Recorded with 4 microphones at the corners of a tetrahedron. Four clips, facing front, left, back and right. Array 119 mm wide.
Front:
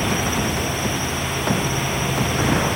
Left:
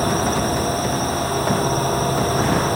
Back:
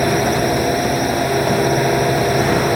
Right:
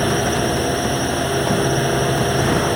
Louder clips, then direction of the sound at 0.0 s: Right 1 dB, back 6 dB; 160° right.